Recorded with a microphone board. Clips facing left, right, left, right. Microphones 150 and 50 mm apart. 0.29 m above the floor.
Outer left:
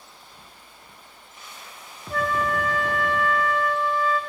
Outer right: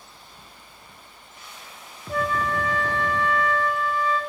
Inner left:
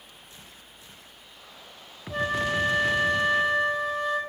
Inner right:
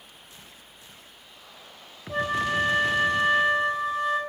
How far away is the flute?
About 2.5 m.